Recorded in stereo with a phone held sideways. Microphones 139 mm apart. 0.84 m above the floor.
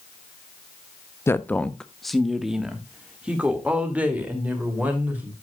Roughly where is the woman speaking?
Centre.